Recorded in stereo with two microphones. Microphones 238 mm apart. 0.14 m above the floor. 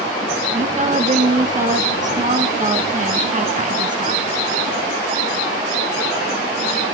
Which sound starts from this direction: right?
A woman speaking, at 0.6 s.